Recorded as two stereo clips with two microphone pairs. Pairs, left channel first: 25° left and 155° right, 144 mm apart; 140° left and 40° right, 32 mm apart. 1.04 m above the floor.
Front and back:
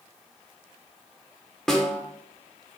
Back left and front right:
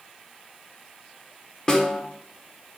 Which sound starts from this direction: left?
A snare drum, at 1.7 s.